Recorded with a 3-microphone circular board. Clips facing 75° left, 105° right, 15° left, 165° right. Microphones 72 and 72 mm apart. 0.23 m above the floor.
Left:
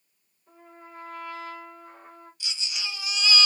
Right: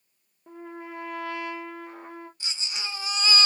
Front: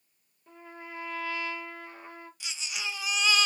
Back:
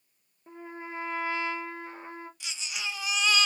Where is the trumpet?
100° right, 0.9 m.